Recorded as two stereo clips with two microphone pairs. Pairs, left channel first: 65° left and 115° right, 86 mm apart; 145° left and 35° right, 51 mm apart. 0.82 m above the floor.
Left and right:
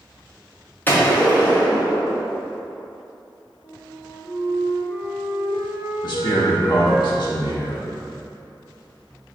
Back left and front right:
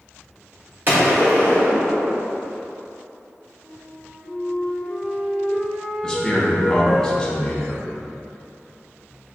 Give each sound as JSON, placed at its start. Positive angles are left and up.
{"t": 0.9, "sound": "a gunshot", "azimuth_deg": 0, "distance_m": 1.0}
{"t": 3.6, "sound": "a flute", "azimuth_deg": 70, "distance_m": 1.0}
{"t": 6.0, "sound": "a man speaking", "azimuth_deg": 70, "distance_m": 1.0}